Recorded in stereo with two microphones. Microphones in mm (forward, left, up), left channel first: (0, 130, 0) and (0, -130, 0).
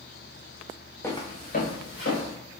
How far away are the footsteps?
About 0.7 m.